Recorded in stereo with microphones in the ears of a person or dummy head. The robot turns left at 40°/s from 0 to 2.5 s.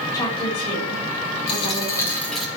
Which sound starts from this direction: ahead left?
A dropped coin, at 1.5 s.